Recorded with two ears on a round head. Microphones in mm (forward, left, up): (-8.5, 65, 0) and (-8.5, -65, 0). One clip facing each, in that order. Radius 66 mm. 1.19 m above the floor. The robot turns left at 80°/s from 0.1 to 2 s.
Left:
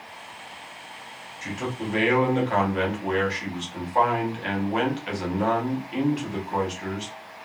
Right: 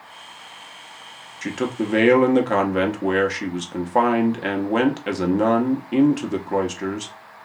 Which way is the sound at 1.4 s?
65° right.